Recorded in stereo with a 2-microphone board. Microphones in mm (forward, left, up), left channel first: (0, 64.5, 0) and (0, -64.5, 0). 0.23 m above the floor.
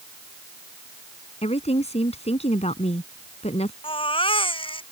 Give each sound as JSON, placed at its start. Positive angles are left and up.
{"t": 1.4, "sound": "a woman speaking", "side_deg": 55}
{"t": 3.8, "sound": "a baby crying", "side_deg": 40}